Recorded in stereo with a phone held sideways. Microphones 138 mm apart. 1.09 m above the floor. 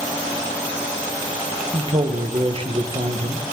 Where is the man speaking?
40° right (ahead or behind), 0.7 m.